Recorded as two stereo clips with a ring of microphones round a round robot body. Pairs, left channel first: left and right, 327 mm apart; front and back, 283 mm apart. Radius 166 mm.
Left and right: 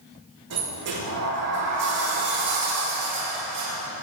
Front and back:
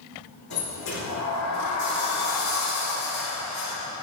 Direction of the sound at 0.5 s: 45° right.